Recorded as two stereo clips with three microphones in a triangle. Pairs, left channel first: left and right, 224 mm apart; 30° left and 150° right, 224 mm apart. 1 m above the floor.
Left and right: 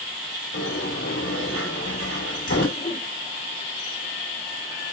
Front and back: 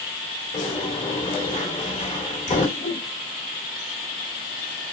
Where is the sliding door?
90° left, 2.5 m.